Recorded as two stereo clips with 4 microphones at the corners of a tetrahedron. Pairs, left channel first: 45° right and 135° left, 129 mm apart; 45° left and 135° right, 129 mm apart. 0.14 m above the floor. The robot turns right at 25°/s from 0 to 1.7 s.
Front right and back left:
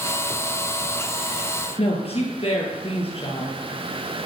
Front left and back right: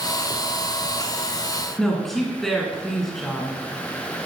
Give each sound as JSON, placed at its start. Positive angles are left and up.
{"t": 1.8, "sound": "a woman speaking", "azimuth_deg": -45, "distance_m": 2.5}